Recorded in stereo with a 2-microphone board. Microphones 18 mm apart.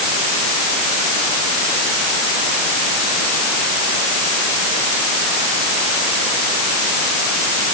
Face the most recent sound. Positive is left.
No sound to turn to.